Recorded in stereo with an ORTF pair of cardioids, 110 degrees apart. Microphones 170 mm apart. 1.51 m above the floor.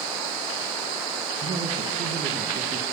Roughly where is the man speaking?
Ahead right.